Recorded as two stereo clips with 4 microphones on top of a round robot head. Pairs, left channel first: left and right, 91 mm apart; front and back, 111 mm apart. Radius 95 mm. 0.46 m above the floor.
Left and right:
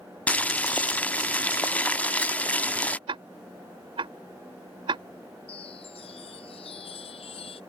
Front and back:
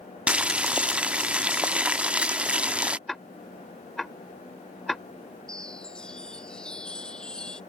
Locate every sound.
0.3 s boiling: 125° left
3.1 s ticking: 90° right
5.5 s a chime: 80° left